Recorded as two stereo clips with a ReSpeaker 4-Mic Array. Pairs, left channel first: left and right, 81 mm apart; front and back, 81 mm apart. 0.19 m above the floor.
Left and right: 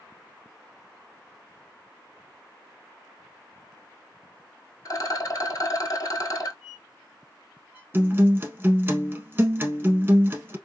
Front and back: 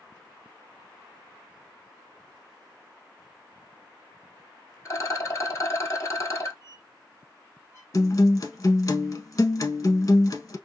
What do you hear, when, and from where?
4.8 s a rattle: 50° left, 0.8 m
6.6 s a squeak: 160° right, 1.2 m
7.9 s a guitar: 30° right, 0.7 m